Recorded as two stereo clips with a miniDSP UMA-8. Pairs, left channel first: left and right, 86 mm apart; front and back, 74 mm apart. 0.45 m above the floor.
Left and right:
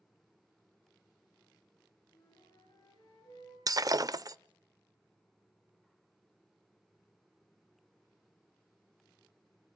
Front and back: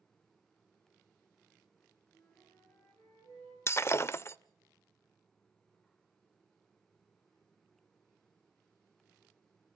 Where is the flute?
45° left, 9.5 m.